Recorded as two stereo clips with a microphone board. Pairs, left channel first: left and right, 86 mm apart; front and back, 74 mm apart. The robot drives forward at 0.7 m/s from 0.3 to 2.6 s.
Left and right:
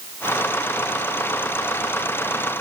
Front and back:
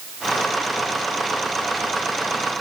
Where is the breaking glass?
No breaking glass in this recording.